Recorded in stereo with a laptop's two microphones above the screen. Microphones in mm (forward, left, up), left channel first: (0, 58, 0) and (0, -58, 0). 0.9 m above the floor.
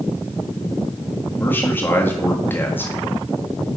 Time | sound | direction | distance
1.4 | a man speaking | 20° left (ahead or behind) | 1.4 m